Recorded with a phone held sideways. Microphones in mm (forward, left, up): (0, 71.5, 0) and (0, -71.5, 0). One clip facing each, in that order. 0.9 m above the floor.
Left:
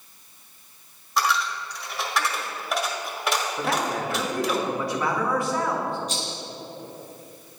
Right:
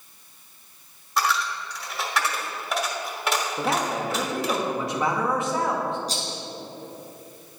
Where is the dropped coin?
Centre (ahead or behind), 1.4 m.